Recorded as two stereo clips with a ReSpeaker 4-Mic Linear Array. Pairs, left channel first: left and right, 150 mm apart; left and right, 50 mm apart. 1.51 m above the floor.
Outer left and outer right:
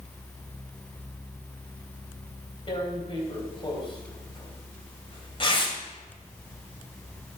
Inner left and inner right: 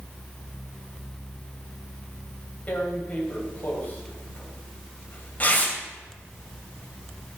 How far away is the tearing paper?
About 2.5 m.